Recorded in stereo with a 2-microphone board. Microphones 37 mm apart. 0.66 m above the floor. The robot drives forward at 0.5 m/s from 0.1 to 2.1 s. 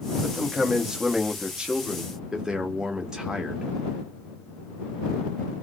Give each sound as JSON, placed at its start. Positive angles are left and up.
{"t": 0.2, "sound": "a man speaking", "side_deg": -15, "distance_m": 1.1}